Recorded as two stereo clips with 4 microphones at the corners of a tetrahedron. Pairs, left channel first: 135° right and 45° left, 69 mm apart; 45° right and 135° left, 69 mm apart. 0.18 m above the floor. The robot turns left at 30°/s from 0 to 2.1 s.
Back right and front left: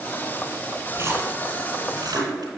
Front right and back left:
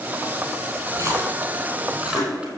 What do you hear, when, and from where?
0.9 s a splash: 95° left, 3 m; by 2.5 s 60° left, 3 m